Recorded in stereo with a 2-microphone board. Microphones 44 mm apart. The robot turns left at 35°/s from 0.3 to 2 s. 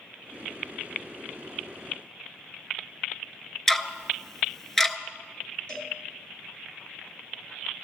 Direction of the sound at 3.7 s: 10° left (ahead or behind).